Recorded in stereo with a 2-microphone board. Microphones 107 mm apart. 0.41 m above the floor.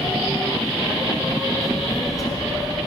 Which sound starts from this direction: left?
A child speaking, at 1.6 s.